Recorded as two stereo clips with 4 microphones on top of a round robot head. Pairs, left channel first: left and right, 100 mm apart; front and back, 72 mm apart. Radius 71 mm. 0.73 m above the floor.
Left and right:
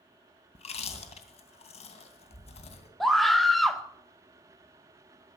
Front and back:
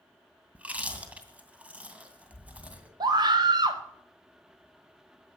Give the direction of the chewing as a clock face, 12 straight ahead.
8 o'clock.